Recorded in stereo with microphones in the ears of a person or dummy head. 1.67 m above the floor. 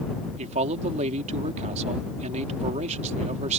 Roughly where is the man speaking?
Right.